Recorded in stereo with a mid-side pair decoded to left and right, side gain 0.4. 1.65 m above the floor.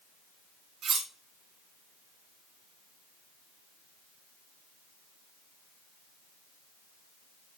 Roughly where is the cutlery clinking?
Ahead right.